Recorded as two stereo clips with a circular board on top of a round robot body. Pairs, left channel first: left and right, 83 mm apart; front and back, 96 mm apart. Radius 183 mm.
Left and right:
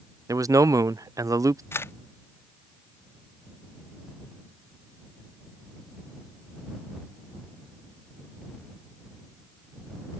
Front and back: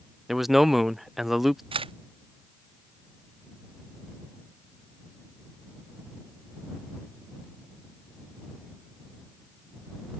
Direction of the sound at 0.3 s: 95° right.